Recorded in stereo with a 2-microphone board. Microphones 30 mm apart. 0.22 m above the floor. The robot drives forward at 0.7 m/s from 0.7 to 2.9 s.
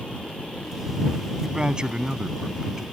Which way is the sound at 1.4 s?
30° right (ahead or behind).